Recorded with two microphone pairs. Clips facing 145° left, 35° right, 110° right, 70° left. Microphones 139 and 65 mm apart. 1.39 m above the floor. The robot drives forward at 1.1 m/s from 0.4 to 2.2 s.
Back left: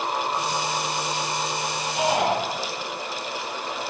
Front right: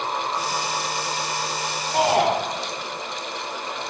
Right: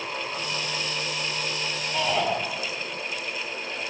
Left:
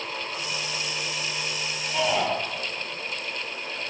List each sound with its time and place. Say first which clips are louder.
1.9 s a shout: front right 4 dB, left 1 dB; 20° right, 5.5 m